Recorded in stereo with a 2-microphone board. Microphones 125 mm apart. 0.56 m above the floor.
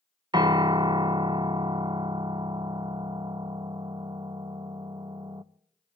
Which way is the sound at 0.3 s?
35° right (ahead or behind).